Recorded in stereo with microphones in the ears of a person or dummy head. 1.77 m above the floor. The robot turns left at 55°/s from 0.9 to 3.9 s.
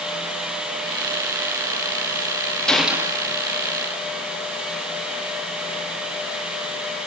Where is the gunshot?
5° left, 3 m; by 3.2 s 25° right, 3 m.